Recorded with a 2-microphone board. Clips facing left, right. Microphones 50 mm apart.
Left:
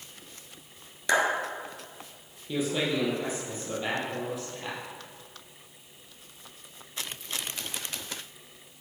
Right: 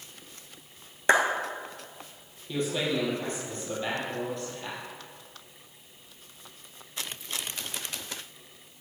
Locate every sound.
1.1 s a clap: 35° right (ahead or behind), 1.5 m
2.5 s a man speaking: 5° left (ahead or behind), 2.5 m